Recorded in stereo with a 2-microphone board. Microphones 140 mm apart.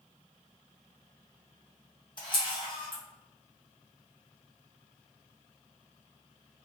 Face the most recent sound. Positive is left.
turn(degrees=35)  # may be behind; listen again after turning